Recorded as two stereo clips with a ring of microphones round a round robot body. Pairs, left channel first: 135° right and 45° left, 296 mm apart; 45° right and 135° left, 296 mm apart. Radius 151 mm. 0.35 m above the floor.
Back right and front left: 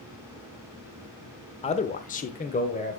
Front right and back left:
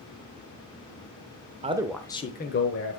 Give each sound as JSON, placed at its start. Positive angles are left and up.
{"t": 1.6, "sound": "a man speaking", "azimuth_deg": 175, "distance_m": 0.9}